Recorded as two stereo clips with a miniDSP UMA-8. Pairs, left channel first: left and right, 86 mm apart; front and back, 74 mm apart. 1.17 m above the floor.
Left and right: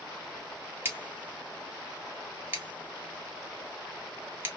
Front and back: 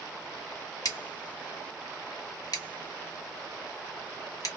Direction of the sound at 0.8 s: 25° right.